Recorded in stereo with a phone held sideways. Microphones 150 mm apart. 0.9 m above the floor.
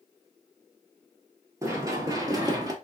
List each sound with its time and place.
1.6 s running footsteps: 20° right (ahead or behind), 1.0 m; by 2.7 s 25° right (ahead or behind), 1.0 m